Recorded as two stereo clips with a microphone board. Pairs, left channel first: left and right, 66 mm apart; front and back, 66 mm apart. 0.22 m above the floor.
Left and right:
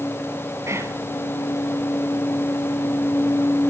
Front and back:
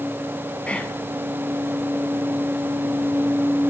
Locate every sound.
0.7 s whispering: 70° right, 1.5 m